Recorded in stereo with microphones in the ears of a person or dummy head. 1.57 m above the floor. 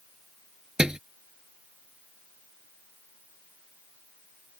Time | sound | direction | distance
0.8 | a thud | centre (ahead or behind) | ?